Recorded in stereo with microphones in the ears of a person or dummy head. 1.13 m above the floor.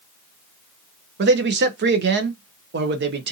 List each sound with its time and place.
1.2 s a man speaking: 45° right (ahead or behind), 0.5 m